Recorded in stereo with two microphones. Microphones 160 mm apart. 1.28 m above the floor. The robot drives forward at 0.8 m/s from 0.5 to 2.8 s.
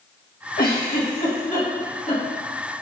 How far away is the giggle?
About 1.9 m.